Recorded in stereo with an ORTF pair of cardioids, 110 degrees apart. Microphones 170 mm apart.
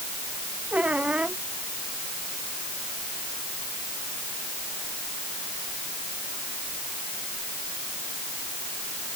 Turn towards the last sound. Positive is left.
turn(degrees=-5)